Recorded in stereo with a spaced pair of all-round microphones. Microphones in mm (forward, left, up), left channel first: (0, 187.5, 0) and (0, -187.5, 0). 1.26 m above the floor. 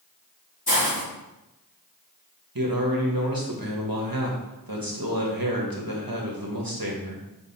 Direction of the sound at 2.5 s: 60° right (ahead or behind).